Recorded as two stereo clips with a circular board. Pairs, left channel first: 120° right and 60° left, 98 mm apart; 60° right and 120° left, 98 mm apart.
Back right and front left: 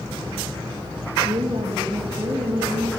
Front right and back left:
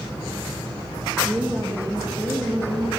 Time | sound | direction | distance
1.2 | a woman speaking | 55° left | 1.1 m